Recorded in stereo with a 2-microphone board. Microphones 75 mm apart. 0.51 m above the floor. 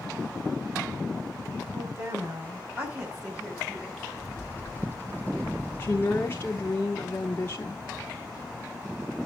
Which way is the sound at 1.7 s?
45° right (ahead or behind).